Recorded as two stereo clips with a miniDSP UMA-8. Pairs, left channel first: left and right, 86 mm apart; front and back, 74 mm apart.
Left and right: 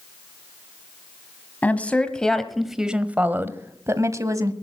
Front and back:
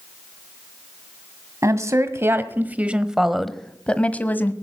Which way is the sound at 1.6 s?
155° left.